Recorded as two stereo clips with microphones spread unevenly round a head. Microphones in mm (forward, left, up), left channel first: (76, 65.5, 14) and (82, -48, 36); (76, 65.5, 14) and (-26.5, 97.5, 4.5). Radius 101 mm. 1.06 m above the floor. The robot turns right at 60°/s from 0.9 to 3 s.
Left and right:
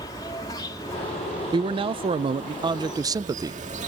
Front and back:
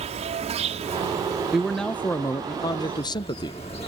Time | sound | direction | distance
0.0 | an insect | 160° left | ?
1.5 | a man speaking | 120° right | ?